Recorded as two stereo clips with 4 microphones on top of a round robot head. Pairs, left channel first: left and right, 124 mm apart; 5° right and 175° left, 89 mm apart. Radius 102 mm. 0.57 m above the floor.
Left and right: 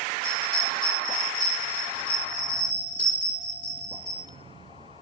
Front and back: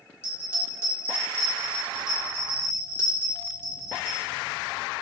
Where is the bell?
55° left, 2.5 m.